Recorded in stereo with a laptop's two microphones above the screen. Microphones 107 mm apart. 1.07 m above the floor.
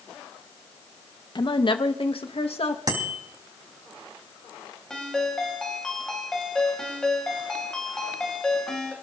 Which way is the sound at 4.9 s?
5° left (ahead or behind).